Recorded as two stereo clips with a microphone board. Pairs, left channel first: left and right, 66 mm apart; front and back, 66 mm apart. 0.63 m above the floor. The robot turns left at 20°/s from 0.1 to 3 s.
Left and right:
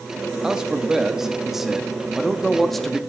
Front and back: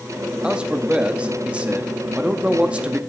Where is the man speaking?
145° right, 0.6 m; by 3.0 s 165° left, 0.6 m.